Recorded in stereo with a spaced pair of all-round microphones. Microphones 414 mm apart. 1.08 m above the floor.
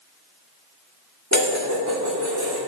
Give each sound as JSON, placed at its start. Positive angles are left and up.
{"t": 1.3, "sound": "dishes clattering", "side_deg": -40, "distance_m": 1.7}